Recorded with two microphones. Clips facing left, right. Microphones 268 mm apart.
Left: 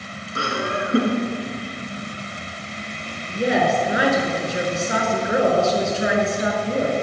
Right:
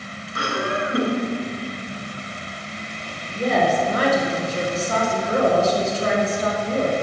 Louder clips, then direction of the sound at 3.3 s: Left 1 dB; 15° left (ahead or behind).